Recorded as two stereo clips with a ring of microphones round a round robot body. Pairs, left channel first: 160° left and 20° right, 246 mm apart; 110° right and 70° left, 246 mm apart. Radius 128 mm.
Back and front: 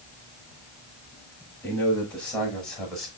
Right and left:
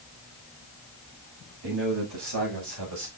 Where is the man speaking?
75° left, 6.5 m; by 3.1 s 70° left, 5.5 m.